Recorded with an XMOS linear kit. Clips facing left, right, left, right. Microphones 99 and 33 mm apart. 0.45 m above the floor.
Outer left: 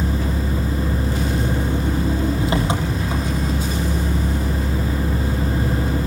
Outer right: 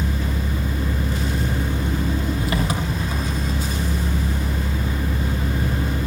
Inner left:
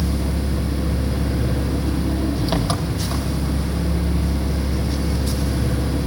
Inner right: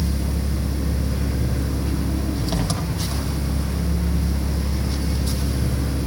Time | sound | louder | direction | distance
0.0 | an engine running | outer left 3 dB, inner left 3 dB | 25° left (ahead or behind) | 7 m